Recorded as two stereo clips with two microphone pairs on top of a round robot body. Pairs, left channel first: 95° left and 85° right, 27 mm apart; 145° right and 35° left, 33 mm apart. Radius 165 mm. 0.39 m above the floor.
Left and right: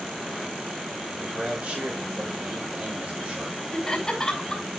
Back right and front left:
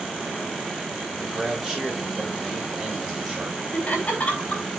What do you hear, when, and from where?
1.2 s a man speaking: 45° right, 8 m
3.7 s laughter: 160° left, 5.5 m